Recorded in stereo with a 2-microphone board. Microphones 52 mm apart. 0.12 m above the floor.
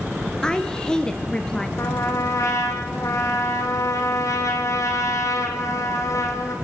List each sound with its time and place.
0.4 s a woman speaking: 15° left (ahead or behind), 2 m
1.8 s a trumpet: 75° left (ahead or behind), 3.5 m